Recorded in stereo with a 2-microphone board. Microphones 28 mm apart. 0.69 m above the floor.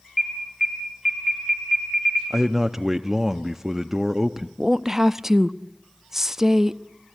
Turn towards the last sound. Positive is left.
turn(degrees=-15)  # may be behind; listen again after turning